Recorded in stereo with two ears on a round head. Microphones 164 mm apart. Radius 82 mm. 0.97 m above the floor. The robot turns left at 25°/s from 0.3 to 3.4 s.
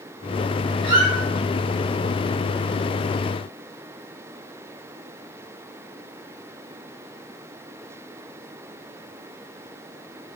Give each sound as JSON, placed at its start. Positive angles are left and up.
{"t": 0.8, "sound": "a squeak", "side_deg": -30, "distance_m": 1.3}